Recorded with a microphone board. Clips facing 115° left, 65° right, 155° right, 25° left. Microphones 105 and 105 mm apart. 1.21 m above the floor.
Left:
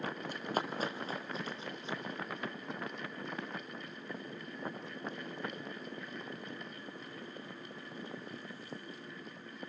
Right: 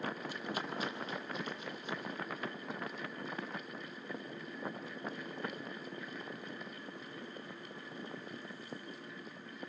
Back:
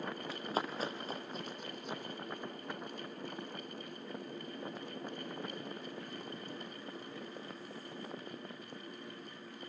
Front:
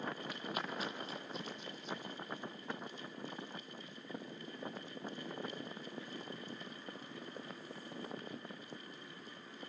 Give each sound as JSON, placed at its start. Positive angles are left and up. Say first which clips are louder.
{"t": 0.3, "sound": "running footsteps", "louder": "left 3 dB, back 4 dB", "azimuth_deg": 145, "distance_m": 2.5}